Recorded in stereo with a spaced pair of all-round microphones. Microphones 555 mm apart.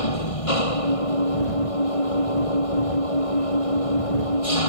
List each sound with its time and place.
0.0 s an engine running: 75° left (ahead or behind)